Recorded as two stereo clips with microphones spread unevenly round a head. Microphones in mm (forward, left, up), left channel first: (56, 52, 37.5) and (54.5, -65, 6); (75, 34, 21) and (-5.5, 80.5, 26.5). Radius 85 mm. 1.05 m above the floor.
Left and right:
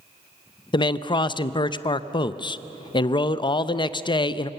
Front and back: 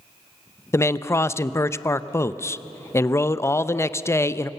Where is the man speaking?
35° left, 0.7 m.